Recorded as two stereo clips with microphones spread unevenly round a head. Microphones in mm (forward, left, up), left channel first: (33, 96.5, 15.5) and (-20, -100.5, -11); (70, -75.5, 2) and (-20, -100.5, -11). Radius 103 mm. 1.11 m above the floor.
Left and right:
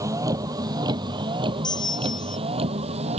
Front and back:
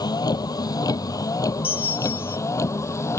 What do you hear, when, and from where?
0.0 s a vehicle: 30° right; by 3.2 s 45° right
1.6 s a bell: 5° left